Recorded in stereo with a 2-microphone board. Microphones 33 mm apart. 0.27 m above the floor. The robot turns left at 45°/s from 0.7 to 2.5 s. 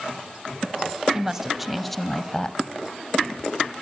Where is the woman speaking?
155° right, 1.6 m; by 2.6 s 145° left, 1.6 m.